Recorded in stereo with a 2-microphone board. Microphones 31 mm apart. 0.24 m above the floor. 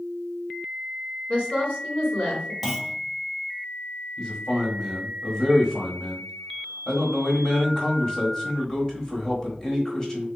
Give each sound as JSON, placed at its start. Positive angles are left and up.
{"t": 1.3, "sound": "a woman speaking", "side_deg": 50, "distance_m": 2.0}
{"t": 2.6, "sound": "a clunk", "side_deg": -10, "distance_m": 0.6}
{"t": 4.2, "sound": "a man speaking", "side_deg": 20, "distance_m": 1.2}